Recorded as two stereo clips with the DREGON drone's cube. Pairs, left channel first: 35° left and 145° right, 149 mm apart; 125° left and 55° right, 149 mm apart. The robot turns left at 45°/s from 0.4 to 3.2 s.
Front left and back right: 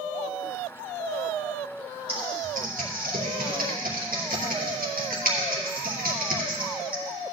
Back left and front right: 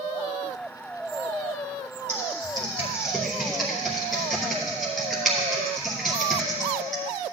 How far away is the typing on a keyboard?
About 2.5 m.